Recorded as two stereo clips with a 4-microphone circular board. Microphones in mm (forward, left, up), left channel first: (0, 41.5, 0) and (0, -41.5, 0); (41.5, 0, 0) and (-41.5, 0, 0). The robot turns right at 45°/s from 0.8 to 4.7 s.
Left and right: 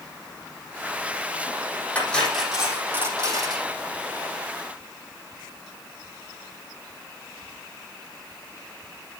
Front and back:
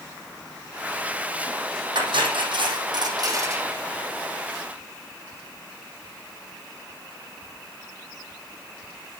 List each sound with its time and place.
1.9 s cutlery clinking: 160° left, 4 m; by 3.7 s 120° right, 4 m